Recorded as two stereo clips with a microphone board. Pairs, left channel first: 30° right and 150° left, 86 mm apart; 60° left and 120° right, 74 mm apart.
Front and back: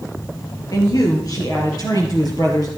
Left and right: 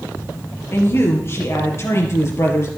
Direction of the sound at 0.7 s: 10° left.